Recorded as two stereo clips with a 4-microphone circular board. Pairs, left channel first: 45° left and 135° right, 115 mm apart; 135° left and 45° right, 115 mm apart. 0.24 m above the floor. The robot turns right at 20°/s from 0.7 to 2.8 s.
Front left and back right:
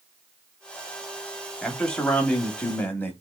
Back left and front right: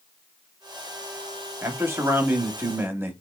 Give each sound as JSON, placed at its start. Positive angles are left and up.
{"t": 1.6, "sound": "a man speaking", "azimuth_deg": -30, "distance_m": 1.0}